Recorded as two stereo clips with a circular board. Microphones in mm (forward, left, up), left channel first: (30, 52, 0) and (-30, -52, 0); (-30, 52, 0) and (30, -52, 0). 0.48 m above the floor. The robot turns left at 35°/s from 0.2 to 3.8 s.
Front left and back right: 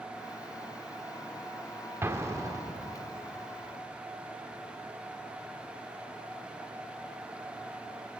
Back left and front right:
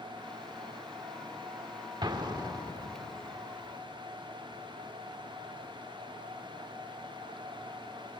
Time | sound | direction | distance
2.0 | an explosion | 65° right | 1.0 m